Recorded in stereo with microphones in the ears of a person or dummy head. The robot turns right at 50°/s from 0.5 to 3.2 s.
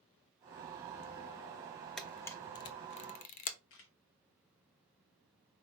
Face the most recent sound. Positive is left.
turn(degrees=65)  # may be behind; listen again after turning